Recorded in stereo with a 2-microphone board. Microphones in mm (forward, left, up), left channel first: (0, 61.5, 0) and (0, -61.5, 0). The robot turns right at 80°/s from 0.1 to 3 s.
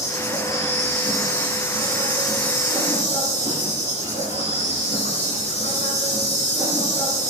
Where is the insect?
175° right, 9.5 m; by 7.3 s 55° left, 9.5 m.